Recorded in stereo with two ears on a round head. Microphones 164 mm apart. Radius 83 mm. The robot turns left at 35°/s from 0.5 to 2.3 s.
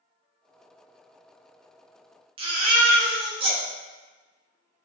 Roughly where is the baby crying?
Right.